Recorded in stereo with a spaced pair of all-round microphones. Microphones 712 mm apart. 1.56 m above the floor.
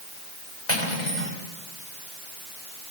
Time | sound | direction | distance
0.7 | cutlery clinking | 70° left (ahead or behind) | 5.5 m